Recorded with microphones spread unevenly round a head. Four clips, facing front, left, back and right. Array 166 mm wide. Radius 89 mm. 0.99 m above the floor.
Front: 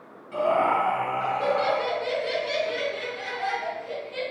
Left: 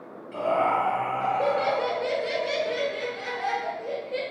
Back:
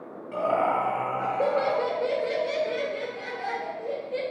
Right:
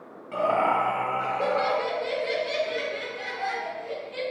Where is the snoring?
I don't hear snoring.